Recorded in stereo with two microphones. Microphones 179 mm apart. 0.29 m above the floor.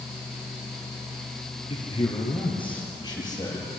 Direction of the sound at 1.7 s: 35° left (ahead or behind).